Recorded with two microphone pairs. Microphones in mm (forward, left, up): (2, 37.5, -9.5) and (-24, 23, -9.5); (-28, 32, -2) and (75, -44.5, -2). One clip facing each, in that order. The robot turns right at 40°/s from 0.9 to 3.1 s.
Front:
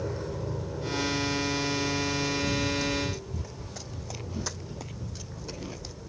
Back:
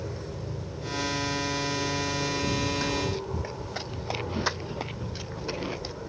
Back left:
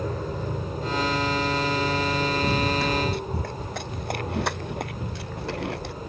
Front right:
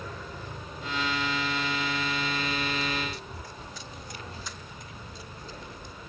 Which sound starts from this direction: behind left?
Running footsteps, at 2.4 s.